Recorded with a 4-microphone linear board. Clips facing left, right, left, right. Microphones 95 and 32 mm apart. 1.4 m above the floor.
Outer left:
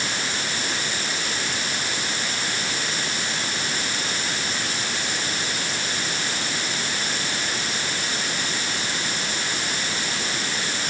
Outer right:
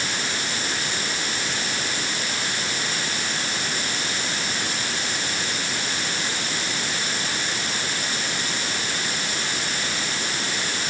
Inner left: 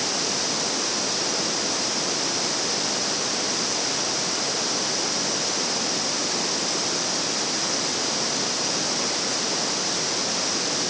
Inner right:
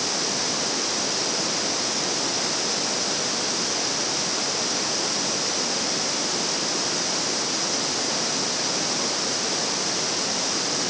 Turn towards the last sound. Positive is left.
No sound to turn to.